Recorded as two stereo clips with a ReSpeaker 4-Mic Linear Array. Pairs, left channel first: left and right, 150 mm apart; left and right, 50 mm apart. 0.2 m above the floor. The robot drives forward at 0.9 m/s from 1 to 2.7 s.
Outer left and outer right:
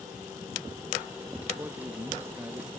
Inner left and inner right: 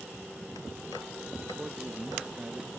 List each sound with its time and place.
1.6 s a man speaking: 15° right (ahead or behind)